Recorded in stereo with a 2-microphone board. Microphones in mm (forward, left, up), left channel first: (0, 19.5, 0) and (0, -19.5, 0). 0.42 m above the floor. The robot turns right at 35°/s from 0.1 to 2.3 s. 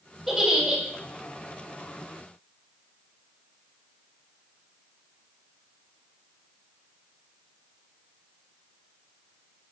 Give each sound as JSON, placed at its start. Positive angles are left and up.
{"t": 0.3, "sound": "a giggle", "side_deg": -5, "distance_m": 2.5}